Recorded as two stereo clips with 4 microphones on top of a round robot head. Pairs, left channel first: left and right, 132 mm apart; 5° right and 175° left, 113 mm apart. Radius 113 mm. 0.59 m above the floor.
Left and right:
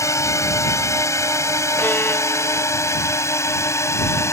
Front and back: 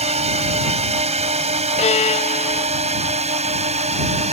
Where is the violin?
10° left.